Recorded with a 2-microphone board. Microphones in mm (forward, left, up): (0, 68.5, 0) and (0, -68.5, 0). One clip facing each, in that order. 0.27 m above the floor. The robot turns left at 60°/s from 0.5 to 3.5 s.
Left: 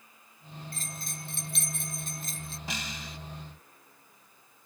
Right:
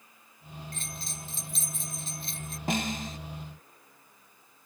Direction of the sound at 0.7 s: 140° left.